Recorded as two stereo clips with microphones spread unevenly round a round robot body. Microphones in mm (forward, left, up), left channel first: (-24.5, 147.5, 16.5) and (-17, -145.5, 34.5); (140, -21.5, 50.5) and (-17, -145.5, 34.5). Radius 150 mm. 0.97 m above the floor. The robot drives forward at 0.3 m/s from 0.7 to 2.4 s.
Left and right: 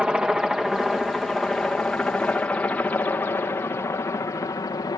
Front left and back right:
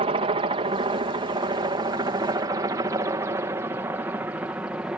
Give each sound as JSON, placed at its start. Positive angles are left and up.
{"t": 0.0, "sound": "a helicopter", "azimuth_deg": -175}